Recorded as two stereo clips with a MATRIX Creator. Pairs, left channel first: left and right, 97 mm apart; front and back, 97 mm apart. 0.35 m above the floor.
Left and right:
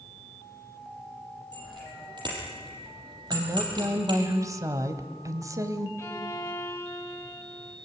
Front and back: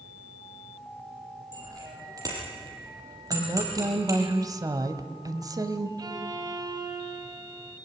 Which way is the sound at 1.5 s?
130° right.